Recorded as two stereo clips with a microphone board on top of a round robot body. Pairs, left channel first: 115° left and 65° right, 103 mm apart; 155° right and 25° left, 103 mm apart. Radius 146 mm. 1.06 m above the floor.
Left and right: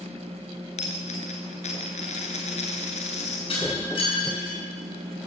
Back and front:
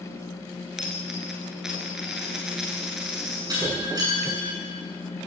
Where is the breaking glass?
75° left, 8 m.